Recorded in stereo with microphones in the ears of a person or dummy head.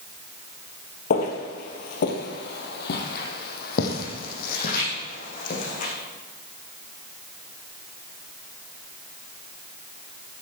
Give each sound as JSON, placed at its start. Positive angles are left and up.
{"t": 1.1, "sound": "footsteps", "side_deg": 40, "distance_m": 1.7}